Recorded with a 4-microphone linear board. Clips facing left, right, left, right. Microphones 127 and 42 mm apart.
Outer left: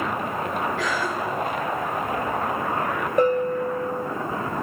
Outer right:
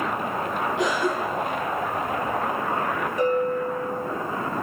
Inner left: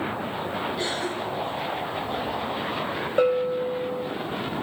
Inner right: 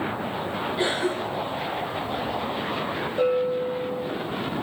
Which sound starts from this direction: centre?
A cough, at 0.8 s.